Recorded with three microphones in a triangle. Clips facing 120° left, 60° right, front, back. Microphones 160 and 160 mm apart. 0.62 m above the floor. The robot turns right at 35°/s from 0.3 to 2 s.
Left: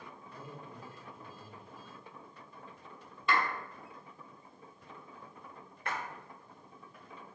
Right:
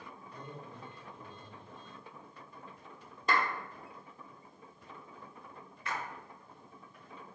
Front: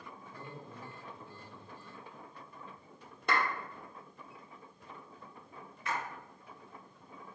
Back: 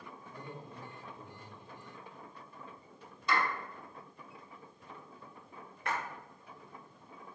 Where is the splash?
150° left, 0.8 m.